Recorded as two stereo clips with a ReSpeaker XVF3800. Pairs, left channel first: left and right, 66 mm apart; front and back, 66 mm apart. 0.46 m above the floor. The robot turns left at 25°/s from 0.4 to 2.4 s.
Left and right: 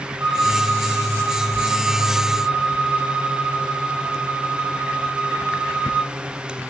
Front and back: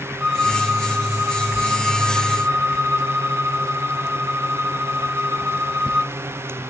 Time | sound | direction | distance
0.2 | a violin | 100° right | 1.5 m